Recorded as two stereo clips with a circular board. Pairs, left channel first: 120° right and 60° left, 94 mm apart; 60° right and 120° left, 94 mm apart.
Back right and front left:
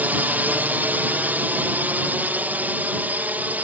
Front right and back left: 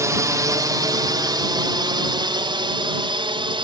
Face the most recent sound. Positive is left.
turn(degrees=130)